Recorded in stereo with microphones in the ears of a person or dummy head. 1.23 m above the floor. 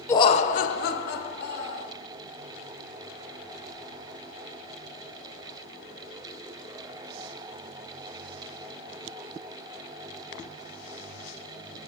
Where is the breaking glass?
I don't hear breaking glass.